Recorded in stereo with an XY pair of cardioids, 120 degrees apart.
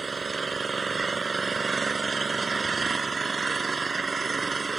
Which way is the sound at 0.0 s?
25° right.